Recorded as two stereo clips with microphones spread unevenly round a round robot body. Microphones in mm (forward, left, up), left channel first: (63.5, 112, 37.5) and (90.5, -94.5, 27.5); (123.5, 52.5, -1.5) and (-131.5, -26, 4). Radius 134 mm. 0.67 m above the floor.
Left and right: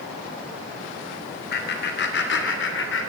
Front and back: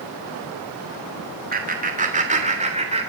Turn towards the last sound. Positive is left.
turn(degrees=130)